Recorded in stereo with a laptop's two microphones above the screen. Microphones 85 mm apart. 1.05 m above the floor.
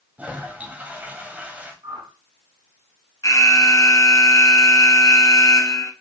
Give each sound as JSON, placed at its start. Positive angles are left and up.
{"t": 0.2, "sound": "a toilet flushing", "side_deg": -20, "distance_m": 1.6}
{"t": 1.8, "sound": "a whoosh", "side_deg": -80, "distance_m": 4.0}
{"t": 3.2, "sound": "an alarm", "side_deg": 45, "distance_m": 1.2}